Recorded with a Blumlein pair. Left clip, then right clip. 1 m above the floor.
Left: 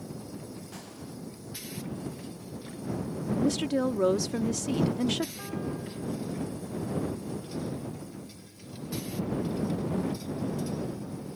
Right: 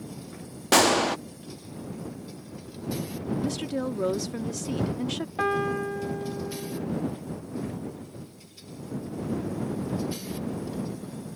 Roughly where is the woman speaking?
Ahead.